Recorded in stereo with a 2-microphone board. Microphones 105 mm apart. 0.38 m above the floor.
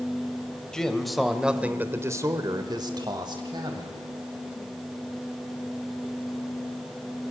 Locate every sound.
0.7 s a man speaking: 5° left (ahead or behind), 1.7 m; by 4.0 s 45° right (ahead or behind), 2 m